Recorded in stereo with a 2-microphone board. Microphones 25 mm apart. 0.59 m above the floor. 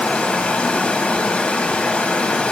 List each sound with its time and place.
0.0 s running water: 65° left (ahead or behind), 2.5 m